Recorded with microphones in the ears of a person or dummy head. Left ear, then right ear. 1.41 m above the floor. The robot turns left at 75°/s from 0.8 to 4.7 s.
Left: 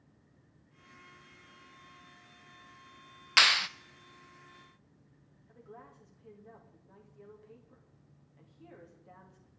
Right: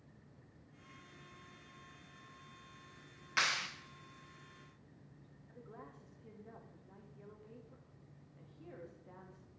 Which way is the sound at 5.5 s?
10° left (ahead or behind).